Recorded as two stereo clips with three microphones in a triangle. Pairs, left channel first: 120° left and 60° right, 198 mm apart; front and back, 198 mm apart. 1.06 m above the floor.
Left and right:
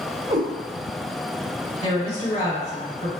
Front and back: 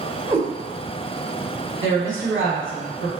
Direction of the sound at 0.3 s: 110° right.